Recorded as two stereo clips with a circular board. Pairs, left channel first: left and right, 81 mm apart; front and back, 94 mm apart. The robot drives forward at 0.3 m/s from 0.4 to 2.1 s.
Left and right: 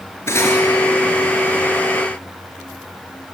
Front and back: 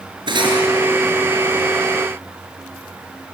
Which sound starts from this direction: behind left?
Cutlery clinking, at 0.3 s.